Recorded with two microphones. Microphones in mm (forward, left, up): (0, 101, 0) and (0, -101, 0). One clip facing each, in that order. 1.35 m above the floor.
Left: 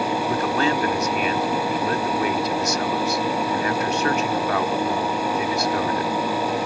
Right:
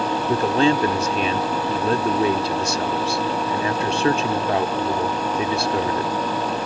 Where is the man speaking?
30° right (ahead or behind).